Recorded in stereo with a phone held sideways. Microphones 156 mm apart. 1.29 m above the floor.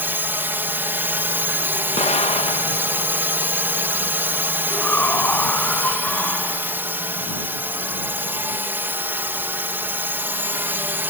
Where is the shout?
10° left (ahead or behind).